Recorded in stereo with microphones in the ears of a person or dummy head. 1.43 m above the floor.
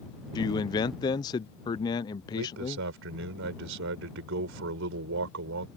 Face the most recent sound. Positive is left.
turn(degrees=-65)  # may be behind; listen again after turning